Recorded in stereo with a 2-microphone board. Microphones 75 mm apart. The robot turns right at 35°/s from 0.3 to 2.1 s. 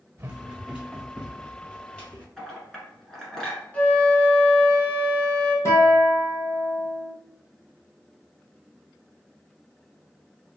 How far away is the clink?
About 1.4 m.